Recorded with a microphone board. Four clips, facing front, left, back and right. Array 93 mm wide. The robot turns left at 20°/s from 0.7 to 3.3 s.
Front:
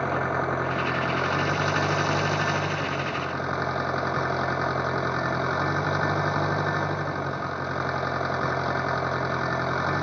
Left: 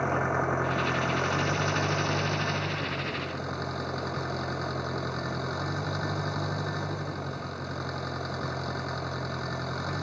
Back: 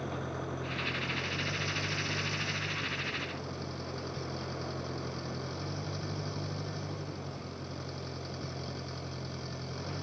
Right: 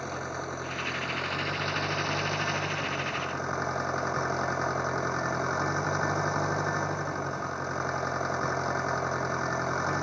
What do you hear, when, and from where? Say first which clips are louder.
0.0 s an engine running: left 8 dB, front 12 dB; 30° left; by 10.0 s 20° right